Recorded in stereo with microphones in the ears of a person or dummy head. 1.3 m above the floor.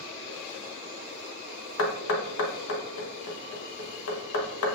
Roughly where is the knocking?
Left.